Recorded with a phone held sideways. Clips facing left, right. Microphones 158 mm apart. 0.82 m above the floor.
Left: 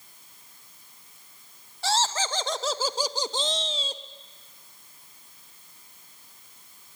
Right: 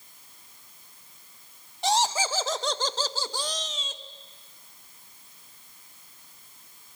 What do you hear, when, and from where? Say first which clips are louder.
1.8 s laughter: right 2 dB; 20° right (ahead or behind), 1.1 m; by 4.0 s 35° left (ahead or behind), 1.2 m